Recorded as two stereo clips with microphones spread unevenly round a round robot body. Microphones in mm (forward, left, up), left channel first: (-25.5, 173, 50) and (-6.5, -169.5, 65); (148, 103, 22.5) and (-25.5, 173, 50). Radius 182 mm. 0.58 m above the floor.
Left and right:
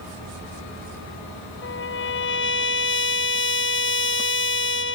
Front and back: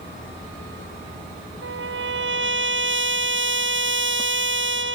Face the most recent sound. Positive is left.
turn(degrees=150)